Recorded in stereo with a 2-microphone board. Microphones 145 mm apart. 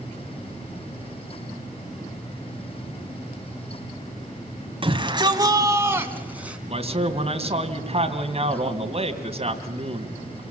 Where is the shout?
40° right (ahead or behind), 2 m; by 6.6 s 10° right (ahead or behind), 3 m.